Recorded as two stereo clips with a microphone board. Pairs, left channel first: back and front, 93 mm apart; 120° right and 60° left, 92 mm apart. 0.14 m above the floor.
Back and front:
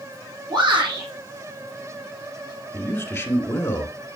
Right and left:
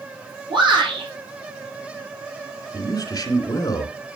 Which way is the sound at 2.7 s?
135° right.